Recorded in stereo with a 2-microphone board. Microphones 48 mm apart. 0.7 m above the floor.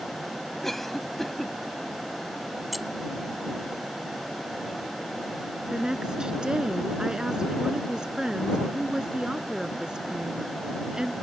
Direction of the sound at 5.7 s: 20° right (ahead or behind).